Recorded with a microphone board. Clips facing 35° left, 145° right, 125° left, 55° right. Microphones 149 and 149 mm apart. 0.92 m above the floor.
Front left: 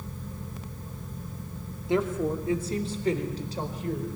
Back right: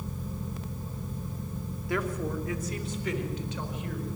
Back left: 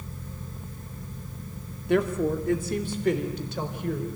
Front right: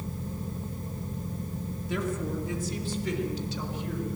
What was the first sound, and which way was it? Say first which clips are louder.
A woman speaking: front left 5 dB, back left 8 dB; 100° left.